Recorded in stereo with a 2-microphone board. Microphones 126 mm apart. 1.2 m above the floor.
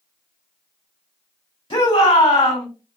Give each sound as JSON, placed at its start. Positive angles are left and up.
{"t": 1.7, "sound": "a shout", "side_deg": 45, "distance_m": 2.5}